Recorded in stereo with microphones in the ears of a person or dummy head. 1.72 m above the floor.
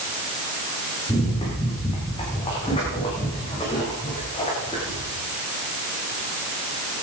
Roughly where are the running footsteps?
Left.